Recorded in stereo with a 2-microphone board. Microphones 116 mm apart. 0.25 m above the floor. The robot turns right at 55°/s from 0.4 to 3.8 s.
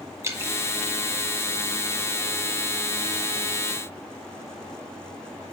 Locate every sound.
0.2 s dripping: 25° right (ahead or behind), 1.3 m